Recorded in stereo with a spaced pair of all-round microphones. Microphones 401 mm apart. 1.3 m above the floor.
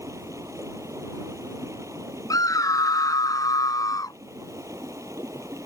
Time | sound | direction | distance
0.0 | running water | 10° right (ahead or behind) | ?
2.3 | a scream | 10° left (ahead or behind) | ?